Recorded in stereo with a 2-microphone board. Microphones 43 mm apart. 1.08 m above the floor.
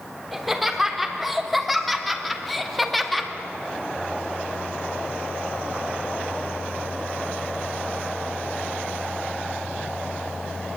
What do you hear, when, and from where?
0.3 s laughter: centre (ahead or behind), 3.5 m; by 3.3 s 5° left (ahead or behind), 2 m